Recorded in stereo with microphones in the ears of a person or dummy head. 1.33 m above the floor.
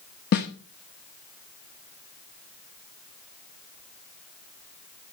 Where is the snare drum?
45° left (ahead or behind), 1.2 m.